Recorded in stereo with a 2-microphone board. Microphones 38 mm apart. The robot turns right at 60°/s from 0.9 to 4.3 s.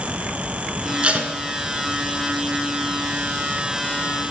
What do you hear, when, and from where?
1.0 s tape being pulled: 25° right (ahead or behind), 1.0 m; by 1.3 s 40° right (ahead or behind), 1.0 m